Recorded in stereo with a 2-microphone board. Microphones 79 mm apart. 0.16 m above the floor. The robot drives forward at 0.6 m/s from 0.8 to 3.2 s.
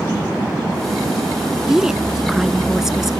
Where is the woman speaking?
5° right (ahead or behind).